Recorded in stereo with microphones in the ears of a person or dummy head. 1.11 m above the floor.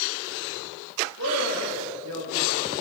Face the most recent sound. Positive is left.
turn(degrees=-85)